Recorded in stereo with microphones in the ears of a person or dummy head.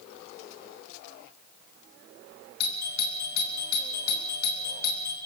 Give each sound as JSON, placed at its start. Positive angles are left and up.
{"t": 2.6, "sound": "a doorbell", "side_deg": 60, "distance_m": 3.0}